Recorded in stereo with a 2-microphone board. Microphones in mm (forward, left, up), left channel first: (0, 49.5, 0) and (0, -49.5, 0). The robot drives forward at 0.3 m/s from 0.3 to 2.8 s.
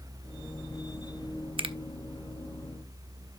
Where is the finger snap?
60° right (ahead or behind), 0.7 m.